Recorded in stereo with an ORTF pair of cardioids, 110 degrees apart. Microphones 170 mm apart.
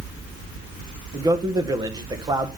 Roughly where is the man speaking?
Ahead right.